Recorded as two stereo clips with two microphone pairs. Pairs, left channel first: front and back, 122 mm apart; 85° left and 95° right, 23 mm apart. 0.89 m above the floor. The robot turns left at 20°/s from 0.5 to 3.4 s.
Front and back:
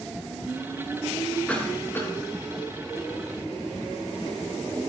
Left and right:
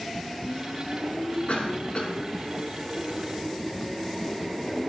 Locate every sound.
1.5 s a cough: 80° left, 7 m; by 2.1 s 70° left, 7 m